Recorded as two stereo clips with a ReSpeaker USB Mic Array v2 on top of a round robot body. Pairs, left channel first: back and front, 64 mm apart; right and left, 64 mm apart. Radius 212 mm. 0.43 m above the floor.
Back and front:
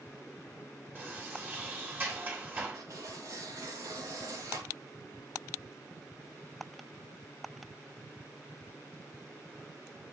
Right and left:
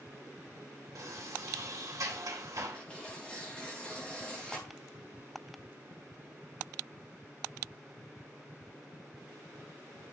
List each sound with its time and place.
0.9 s a sliding door: 55° left, 3 m
2.7 s tearing paper: 15° right, 3.5 m